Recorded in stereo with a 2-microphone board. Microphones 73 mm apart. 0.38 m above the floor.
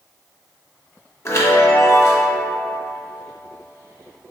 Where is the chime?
40° left (ahead or behind), 0.7 m.